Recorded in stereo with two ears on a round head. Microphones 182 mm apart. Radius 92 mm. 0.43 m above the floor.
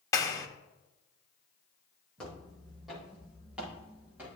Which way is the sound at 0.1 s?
15° left (ahead or behind).